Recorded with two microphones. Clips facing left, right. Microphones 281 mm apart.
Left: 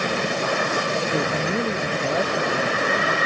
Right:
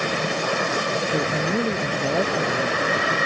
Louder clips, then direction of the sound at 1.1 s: Right 2 dB; centre (ahead or behind).